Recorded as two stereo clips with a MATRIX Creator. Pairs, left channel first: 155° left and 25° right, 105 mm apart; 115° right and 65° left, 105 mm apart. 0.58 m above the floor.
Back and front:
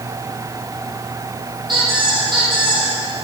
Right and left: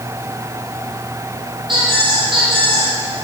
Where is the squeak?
25° left, 5 m.